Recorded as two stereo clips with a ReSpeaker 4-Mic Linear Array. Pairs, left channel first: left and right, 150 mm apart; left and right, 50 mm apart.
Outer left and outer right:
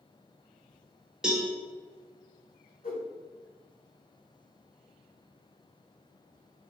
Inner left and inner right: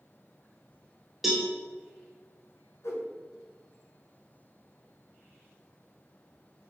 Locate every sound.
1.2 s a cowbell: 5° right (ahead or behind), 1.1 m
2.8 s a whoosh: 70° left (ahead or behind), 0.9 m